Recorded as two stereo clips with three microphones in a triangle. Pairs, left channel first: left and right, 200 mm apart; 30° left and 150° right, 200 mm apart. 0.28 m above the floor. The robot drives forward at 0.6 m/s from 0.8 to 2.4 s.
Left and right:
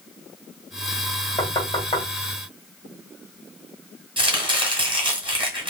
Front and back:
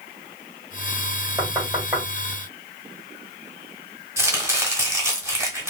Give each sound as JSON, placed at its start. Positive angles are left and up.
{"t": 1.4, "sound": "knocking", "azimuth_deg": 135, "distance_m": 1.5}
{"t": 4.2, "sound": "chopping", "azimuth_deg": -95, "distance_m": 0.9}